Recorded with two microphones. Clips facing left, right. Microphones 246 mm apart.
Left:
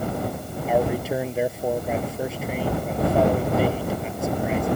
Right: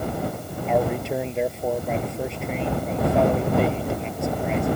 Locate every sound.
0.7 s a man speaking: 5° left (ahead or behind)